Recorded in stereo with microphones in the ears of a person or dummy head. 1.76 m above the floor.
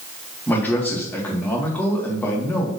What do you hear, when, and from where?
0.5 s a man speaking: 10° left (ahead or behind), 1.5 m